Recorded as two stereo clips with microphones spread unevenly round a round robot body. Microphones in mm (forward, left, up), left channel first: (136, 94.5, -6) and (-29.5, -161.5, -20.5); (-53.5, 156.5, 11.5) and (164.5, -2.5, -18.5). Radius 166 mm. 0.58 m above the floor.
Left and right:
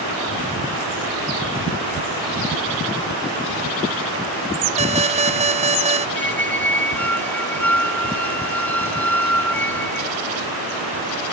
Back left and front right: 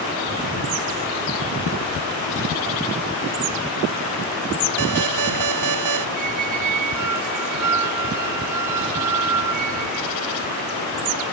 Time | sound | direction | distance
4.8 | an alarm | 55° right | ?
6.2 | a squeak | 30° right | ?